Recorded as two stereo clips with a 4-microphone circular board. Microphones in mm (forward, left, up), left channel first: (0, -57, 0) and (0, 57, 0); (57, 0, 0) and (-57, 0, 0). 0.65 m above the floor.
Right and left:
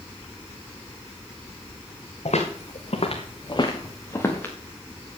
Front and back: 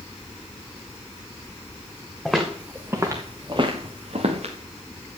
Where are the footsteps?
90° right, 2.5 m; by 4.5 s 165° right, 3 m.